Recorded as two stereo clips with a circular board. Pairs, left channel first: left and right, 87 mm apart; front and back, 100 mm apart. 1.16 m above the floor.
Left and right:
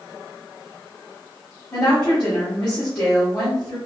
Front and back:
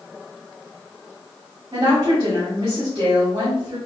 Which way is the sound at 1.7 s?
135° left.